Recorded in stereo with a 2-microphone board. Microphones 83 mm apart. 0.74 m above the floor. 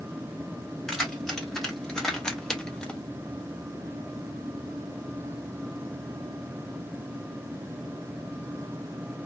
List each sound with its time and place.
0.9 s keys jangling: 5° left (ahead or behind), 1.7 m; by 3.0 s 10° left (ahead or behind), 0.6 m